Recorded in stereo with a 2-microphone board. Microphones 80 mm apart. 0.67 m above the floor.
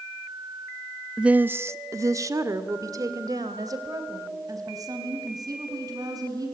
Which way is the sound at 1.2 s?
5° right (ahead or behind).